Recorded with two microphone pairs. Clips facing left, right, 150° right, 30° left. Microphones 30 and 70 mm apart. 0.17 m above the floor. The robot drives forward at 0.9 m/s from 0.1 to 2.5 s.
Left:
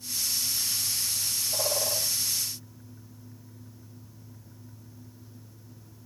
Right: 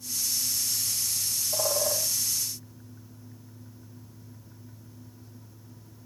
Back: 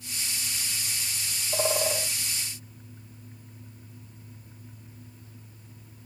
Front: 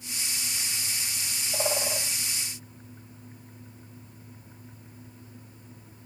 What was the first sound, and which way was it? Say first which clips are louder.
A bird: right 2 dB, back 3 dB; 155° right.